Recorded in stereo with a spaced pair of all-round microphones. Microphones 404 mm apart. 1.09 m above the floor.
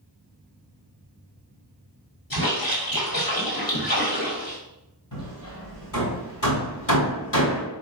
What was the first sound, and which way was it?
A splash, 55° left (ahead or behind).